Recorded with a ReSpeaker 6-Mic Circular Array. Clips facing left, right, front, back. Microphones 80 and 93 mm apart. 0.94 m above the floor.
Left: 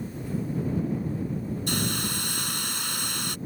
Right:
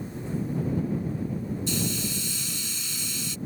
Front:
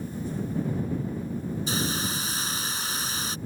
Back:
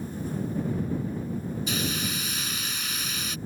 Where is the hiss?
55° left.